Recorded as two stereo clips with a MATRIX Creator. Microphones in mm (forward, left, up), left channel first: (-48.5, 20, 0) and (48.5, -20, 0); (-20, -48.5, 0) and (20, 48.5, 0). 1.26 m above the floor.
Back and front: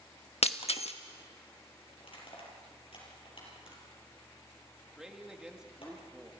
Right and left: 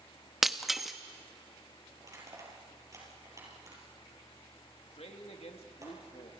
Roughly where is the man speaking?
Right.